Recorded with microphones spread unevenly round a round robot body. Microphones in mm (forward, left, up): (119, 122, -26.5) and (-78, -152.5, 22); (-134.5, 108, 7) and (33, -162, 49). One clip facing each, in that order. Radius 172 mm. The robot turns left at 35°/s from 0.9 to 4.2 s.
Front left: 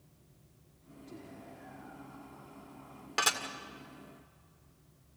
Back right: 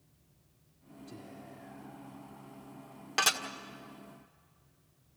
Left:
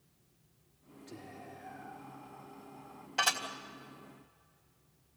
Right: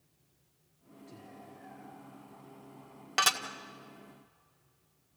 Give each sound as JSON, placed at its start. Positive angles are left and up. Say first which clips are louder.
{"t": 1.1, "sound": "whispering", "louder": "even, left 3 dB", "azimuth_deg": 140, "distance_m": 1.5}
{"t": 3.2, "sound": "dishes clattering", "louder": "even, right 1 dB", "azimuth_deg": -45, "distance_m": 1.8}